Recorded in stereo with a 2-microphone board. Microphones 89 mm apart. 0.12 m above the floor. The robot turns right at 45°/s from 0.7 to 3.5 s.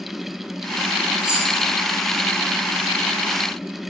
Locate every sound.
1.2 s keys jangling: 15° right (ahead or behind), 3.5 m; by 1.5 s centre (ahead or behind), 3.5 m